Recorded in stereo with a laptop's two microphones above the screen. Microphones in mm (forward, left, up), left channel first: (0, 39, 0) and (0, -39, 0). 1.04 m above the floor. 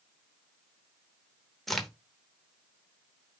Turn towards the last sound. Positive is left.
turn(degrees=0)  # may be behind; listen again after turning